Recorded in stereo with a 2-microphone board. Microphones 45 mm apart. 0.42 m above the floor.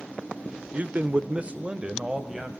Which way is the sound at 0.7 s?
35° right (ahead or behind).